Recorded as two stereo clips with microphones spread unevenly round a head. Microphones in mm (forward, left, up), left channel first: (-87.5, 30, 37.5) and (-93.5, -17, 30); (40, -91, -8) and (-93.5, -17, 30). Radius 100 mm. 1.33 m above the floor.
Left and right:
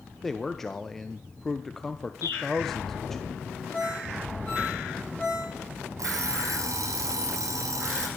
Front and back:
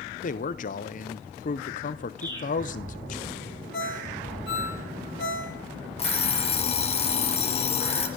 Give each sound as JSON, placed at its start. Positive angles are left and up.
{"t": 0.2, "sound": "a man speaking", "azimuth_deg": -5, "distance_m": 0.9}
{"t": 2.2, "sound": "a bird", "azimuth_deg": 80, "distance_m": 3.0}
{"t": 3.7, "sound": "a ringtone", "azimuth_deg": 5, "distance_m": 4.0}
{"t": 6.0, "sound": "an alarm clock", "azimuth_deg": -80, "distance_m": 2.0}